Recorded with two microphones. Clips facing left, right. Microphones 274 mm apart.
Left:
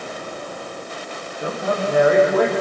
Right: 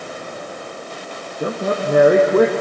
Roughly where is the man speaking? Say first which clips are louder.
Right 2 dB; right.